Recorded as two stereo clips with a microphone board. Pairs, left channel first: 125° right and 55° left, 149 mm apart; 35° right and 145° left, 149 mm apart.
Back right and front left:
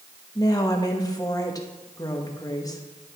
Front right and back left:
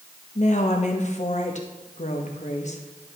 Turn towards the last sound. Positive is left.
turn(degrees=-60)